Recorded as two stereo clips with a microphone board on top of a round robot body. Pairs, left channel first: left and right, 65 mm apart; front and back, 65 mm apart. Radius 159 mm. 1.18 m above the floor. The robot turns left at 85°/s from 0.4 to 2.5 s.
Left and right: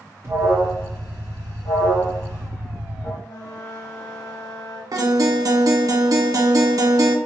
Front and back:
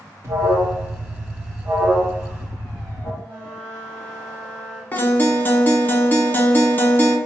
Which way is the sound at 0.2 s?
135° right.